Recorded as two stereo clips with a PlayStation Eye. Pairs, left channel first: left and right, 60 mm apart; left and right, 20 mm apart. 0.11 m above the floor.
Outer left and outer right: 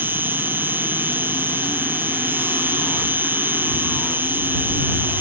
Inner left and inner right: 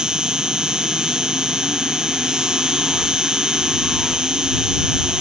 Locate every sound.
0.0 s an insect: 35° right (ahead or behind)